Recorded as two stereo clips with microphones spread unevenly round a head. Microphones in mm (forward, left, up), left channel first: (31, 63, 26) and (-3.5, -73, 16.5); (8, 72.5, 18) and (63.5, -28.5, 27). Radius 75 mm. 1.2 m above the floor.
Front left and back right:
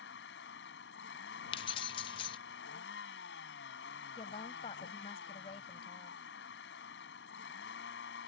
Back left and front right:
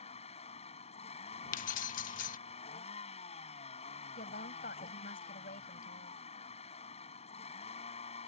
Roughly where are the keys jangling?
Behind left.